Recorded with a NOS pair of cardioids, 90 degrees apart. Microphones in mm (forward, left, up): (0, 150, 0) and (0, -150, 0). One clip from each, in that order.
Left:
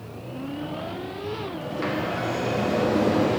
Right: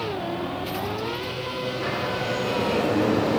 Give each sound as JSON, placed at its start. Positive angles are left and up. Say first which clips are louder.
{"t": 1.6, "sound": "a sliding door", "louder": "right 1 dB", "azimuth_deg": 40, "distance_m": 1.7}